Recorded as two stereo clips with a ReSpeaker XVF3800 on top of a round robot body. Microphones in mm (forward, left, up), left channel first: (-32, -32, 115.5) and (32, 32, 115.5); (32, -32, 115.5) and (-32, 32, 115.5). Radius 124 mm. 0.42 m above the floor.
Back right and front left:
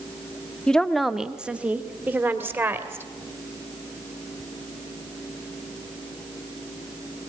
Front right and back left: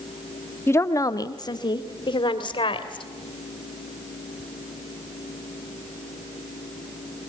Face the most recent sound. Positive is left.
turn(degrees=-20)